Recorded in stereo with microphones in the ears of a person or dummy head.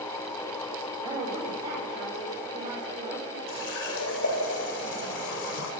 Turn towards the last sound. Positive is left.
turn(degrees=65)  # may be behind; listen again after turning